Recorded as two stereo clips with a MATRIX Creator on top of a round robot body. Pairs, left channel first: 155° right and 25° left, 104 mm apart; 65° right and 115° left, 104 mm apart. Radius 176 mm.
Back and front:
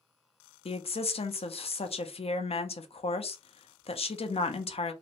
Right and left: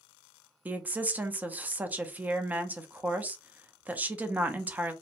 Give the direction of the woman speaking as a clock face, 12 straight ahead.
6 o'clock.